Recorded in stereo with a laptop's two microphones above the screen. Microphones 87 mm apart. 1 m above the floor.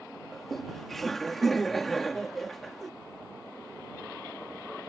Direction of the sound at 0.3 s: Centre (ahead or behind).